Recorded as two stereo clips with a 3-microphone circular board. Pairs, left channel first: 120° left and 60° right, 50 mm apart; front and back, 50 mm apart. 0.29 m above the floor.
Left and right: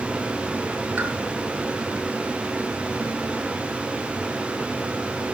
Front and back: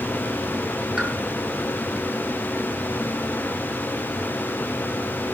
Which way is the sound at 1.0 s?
115° right.